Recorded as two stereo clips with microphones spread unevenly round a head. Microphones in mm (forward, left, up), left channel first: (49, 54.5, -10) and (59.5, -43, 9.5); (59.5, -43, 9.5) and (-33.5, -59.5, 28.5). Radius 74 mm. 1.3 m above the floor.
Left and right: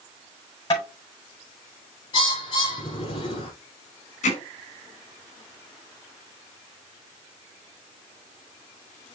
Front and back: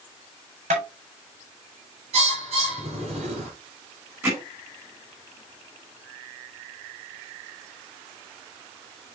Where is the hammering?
115° left, 4.5 m.